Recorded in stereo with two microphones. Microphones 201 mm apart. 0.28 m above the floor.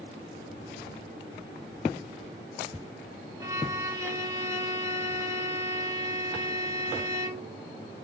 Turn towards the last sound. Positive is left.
turn(degrees=-15)  # may be behind; listen again after turning